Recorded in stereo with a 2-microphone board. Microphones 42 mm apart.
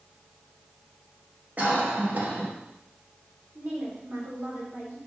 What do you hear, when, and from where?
1.6 s a cough: 40° right (ahead or behind), 1.7 m
3.5 s a woman speaking: 50° right (ahead or behind), 3 m